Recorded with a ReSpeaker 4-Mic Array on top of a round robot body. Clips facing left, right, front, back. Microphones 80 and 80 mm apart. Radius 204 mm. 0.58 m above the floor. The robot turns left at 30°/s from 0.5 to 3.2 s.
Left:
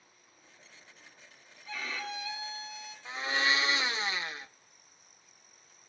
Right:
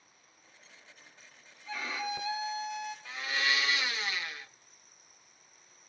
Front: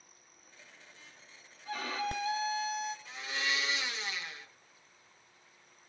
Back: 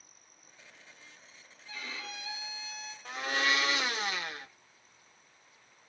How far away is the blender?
About 0.8 m.